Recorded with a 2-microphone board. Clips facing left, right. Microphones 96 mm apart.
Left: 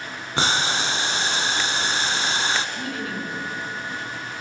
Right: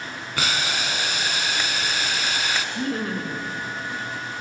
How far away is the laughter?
About 3 m.